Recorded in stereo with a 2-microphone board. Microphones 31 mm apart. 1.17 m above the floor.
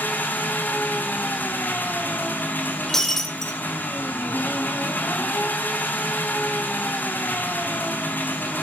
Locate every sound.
0.0 s an engine running: 75° left (ahead or behind), 3 m
2.9 s breaking glass: 15° left (ahead or behind), 2 m